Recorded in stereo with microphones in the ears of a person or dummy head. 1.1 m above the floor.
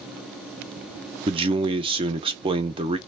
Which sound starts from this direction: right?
A man speaking, at 1.3 s.